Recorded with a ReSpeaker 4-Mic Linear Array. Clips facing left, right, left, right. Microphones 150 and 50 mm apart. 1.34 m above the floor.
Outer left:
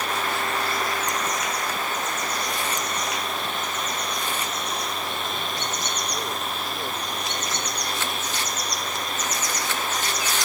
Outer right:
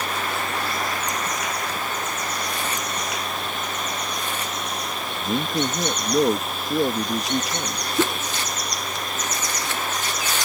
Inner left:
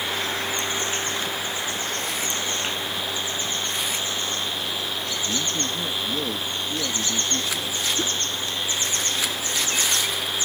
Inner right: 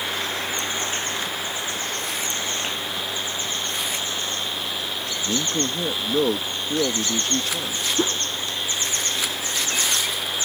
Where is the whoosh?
60° right (ahead or behind).